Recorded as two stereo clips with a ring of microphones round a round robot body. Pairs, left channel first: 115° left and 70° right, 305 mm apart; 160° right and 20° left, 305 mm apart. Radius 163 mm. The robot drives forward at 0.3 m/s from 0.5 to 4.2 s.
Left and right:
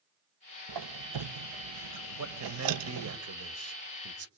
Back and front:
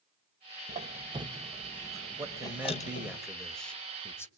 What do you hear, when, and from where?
0.7 s a squeak: 45° right, 1.0 m; by 3.2 s 95° right, 0.7 m
2.2 s a man speaking: 55° right, 1.9 m; by 4.3 s 75° right, 1.7 m